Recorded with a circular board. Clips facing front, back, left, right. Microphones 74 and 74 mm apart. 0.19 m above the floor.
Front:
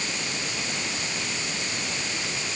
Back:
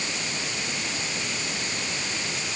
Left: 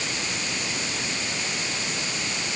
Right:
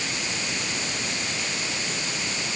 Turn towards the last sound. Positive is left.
No sound to turn to.